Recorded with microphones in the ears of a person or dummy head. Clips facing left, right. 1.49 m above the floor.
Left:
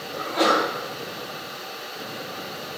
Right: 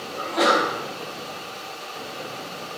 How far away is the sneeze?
About 1.6 m.